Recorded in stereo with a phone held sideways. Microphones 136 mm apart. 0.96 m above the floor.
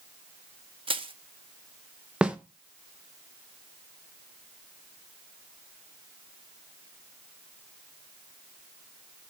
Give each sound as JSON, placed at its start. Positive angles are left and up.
{"t": 0.9, "sound": "crushing", "side_deg": -40, "distance_m": 0.6}
{"t": 2.2, "sound": "a snare drum", "side_deg": -5, "distance_m": 0.6}